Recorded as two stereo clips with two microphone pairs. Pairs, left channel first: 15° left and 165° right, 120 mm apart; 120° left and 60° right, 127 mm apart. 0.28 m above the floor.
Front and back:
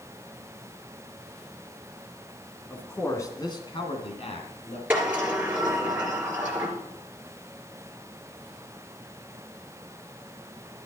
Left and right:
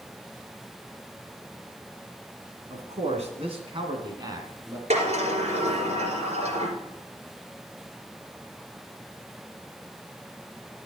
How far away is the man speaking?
About 2.5 m.